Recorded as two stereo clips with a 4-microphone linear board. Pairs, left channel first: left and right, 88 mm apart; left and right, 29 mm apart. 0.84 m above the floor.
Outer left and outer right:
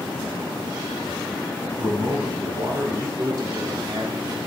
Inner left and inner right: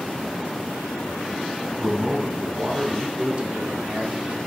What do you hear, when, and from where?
1.8 s a man speaking: 55° right (ahead or behind), 9 m
3.2 s a man speaking: 40° right (ahead or behind), 2.0 m